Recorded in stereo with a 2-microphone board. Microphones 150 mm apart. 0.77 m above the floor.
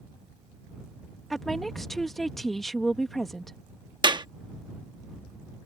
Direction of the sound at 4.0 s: 30° right (ahead or behind).